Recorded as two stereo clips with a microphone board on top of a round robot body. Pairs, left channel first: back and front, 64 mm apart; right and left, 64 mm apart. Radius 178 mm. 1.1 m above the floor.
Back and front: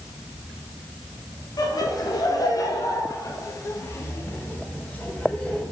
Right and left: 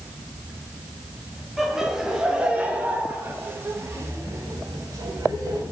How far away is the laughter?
About 2.5 m.